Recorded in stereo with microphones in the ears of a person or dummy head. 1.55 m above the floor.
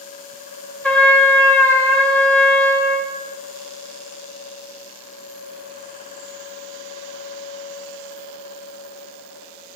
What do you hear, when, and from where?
0.8 s a trumpet: 10° left (ahead or behind), 0.6 m